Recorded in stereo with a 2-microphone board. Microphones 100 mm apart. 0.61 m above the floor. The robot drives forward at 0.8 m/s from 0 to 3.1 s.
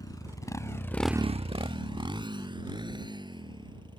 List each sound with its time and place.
0.0 s a motorcycle: 40° left (ahead or behind); by 4.0 s 50° right (ahead or behind)